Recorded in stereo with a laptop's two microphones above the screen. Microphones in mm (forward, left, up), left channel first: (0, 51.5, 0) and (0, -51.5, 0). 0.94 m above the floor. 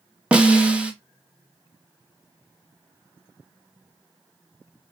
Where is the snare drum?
10° right (ahead or behind), 0.7 m.